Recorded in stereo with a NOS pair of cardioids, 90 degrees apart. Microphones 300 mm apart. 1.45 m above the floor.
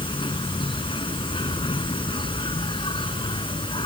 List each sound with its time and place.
0.0 s an insect: 15° left